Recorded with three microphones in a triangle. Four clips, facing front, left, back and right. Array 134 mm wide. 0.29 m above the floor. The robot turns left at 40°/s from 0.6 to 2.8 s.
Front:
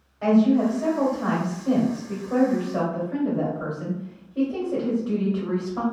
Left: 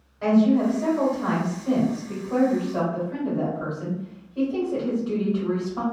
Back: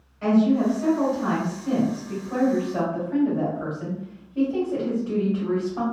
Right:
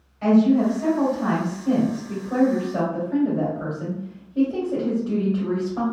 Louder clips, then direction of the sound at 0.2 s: Right 2 dB, front 1 dB; 50° left.